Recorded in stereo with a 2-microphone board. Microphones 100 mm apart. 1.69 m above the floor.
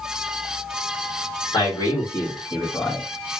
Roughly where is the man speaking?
Left.